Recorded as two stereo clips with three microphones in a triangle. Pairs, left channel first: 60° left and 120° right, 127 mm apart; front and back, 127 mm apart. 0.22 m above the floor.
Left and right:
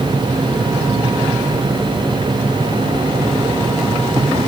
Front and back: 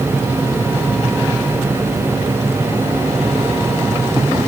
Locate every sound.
Only background noise.